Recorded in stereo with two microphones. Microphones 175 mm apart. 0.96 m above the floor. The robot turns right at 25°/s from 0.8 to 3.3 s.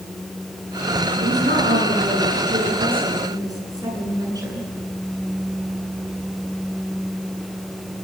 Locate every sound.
1.2 s a woman speaking: 75° right, 9.5 m; by 4.7 s 20° right, 9.5 m